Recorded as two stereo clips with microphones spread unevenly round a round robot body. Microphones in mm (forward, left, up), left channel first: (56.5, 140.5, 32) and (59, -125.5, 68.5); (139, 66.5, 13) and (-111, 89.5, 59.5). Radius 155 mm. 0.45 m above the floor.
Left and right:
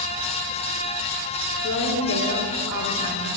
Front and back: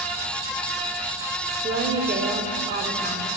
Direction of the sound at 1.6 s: 120° left.